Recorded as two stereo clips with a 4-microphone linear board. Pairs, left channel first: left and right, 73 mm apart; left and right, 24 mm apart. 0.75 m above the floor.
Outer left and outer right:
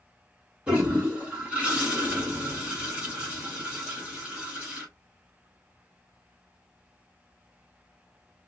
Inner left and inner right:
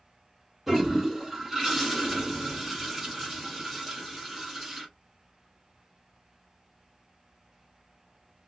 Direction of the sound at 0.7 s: 20° right (ahead or behind).